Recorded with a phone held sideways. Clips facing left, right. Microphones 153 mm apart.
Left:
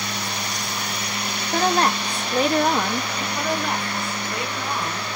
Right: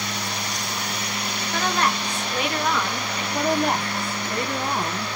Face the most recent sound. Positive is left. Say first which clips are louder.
# right 5 dB
turn(degrees=-50)  # may be behind; listen again after turning